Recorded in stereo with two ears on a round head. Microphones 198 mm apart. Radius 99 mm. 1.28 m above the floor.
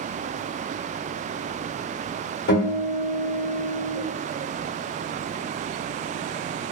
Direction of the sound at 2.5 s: 50° left (ahead or behind).